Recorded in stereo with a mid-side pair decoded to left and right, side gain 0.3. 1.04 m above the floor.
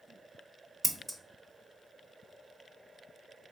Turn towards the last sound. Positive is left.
turn(degrees=-20)